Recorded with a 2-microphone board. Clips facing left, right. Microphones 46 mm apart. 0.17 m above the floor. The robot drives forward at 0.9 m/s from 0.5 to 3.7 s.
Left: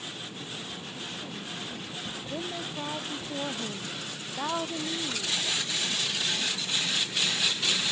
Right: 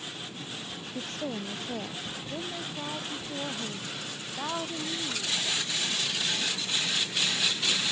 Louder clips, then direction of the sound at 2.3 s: Left 2 dB; 10° left (ahead or behind).